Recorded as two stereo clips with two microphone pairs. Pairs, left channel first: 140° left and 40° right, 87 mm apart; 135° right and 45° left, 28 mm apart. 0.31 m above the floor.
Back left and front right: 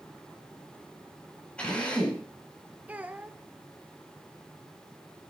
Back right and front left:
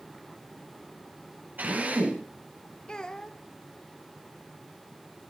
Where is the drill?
65° left, 10 m.